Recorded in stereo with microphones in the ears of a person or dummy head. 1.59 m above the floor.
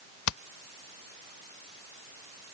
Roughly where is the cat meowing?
I don't hear a cat meowing.